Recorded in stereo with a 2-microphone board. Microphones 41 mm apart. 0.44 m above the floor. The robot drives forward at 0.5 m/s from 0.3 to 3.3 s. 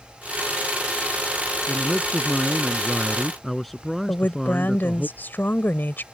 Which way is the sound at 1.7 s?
5° left (ahead or behind).